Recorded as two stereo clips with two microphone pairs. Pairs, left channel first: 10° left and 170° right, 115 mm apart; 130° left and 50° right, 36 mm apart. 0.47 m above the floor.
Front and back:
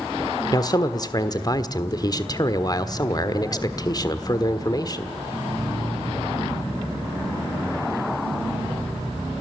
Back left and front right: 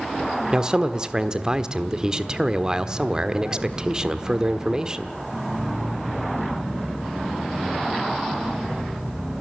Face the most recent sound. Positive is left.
turn(degrees=5)